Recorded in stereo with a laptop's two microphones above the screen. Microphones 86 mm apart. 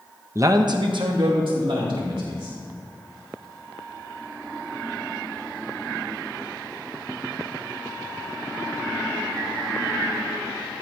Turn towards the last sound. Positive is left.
turn(degrees=-80)